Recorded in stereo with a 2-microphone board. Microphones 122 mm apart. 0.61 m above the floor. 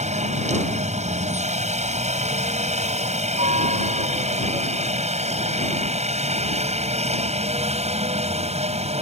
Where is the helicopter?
70° right (ahead or behind); by 9.0 s 60° right (ahead or behind).